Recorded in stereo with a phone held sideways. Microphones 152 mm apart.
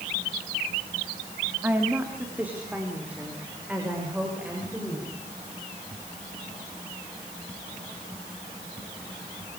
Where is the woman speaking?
10° right (ahead or behind), 3.5 m; by 5.1 s 5° right (ahead or behind), 8 m.